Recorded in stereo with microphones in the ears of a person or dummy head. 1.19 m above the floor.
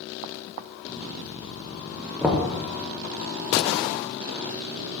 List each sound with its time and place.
2.2 s knocking: centre (ahead or behind), 1.0 m